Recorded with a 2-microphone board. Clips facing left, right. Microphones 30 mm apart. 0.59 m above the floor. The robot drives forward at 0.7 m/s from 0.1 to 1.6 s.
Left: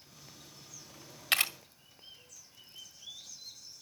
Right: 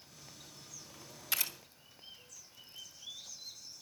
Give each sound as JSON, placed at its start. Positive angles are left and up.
{"t": 1.3, "sound": "a camera shutter", "side_deg": 75, "distance_m": 1.6}